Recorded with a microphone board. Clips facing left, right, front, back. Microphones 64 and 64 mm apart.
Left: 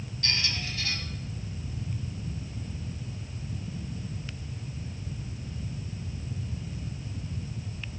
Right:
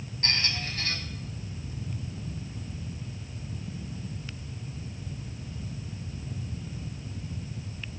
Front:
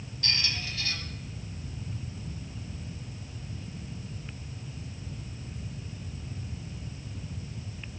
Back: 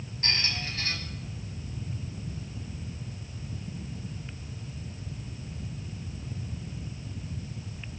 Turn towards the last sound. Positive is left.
turn(degrees=-130)